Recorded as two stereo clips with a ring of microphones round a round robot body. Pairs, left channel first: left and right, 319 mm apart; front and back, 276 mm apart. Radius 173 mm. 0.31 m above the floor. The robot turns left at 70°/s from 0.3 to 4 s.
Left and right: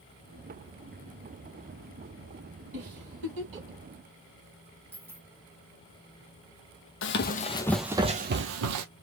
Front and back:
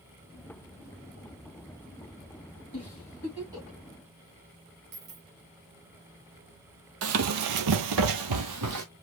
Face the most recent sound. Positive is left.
turn(degrees=-130)